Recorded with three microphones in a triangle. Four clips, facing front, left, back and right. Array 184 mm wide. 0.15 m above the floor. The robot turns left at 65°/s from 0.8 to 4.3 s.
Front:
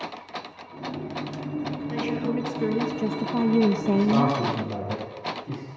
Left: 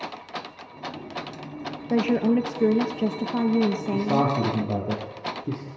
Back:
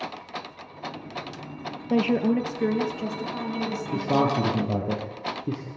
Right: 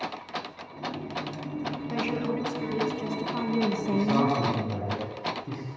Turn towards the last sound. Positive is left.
turn(degrees=145)